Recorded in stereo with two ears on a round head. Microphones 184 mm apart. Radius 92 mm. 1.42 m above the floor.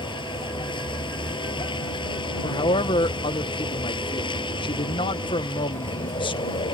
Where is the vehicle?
25° left (ahead or behind).